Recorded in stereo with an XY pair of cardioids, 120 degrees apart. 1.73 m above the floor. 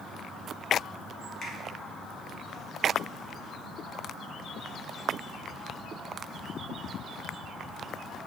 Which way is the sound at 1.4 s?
40° left.